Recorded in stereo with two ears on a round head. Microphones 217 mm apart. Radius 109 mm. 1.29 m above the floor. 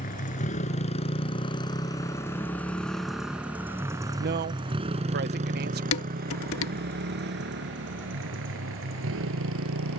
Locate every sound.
0.0 s a motorcycle: 35° left (ahead or behind); by 10.0 s 60° right (ahead or behind)
4.2 s a man speaking: 45° right (ahead or behind)
5.9 s dishes clattering: 65° left (ahead or behind)